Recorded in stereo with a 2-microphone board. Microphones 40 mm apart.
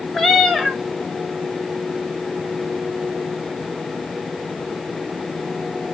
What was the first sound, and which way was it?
A cat meowing, 5° left (ahead or behind).